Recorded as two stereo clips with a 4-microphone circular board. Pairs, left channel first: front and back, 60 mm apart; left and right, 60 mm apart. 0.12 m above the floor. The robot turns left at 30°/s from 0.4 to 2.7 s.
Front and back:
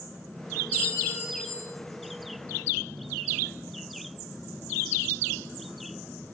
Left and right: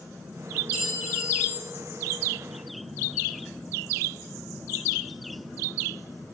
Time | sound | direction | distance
0.7 | a clink | 65° left | 2 m